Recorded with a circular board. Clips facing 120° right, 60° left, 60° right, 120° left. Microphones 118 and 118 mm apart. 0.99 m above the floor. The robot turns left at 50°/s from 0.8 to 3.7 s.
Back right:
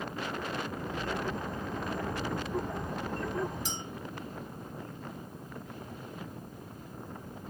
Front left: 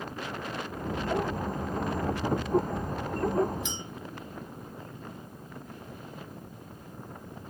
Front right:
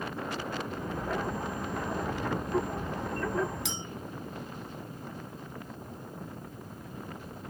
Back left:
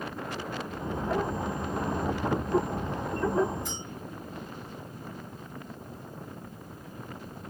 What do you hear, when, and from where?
3.6 s a clink: 70° right, 0.9 m